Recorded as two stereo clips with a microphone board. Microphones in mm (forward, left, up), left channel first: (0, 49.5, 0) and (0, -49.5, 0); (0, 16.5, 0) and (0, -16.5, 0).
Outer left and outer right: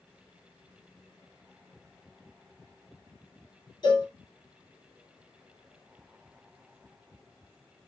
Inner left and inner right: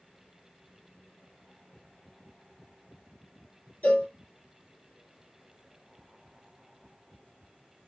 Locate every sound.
3.8 s a cowbell: 50° left (ahead or behind), 1.1 m